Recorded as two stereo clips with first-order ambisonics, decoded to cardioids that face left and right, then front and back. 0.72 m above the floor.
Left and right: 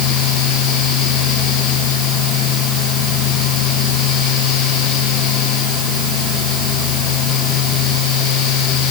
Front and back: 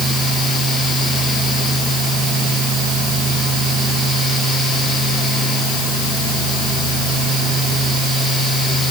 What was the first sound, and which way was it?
Only background noise.